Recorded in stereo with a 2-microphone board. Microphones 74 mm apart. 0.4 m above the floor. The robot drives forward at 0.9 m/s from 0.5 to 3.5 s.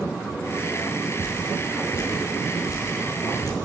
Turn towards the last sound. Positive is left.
turn(degrees=55)  # may be behind; listen again after turning